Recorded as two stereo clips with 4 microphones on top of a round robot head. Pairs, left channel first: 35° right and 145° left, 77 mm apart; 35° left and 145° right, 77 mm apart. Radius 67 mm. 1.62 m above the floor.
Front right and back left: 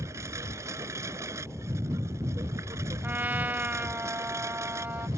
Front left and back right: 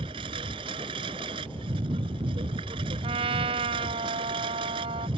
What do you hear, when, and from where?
0.0 s a lawn mower: 160° right
3.0 s a trumpet: 145° right